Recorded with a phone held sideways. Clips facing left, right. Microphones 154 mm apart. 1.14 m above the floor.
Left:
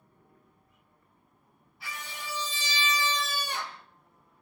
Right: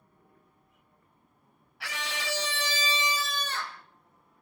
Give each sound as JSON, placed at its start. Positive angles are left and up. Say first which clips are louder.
{"t": 1.8, "sound": "a scream", "louder": "right 6 dB", "side_deg": -75, "distance_m": 1.4}